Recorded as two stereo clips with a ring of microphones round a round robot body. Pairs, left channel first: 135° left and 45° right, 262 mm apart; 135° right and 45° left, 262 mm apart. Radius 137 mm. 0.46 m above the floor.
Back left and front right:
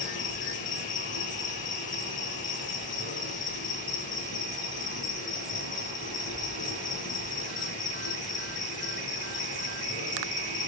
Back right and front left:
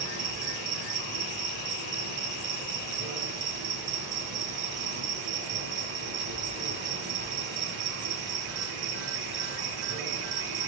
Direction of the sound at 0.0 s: 75° left.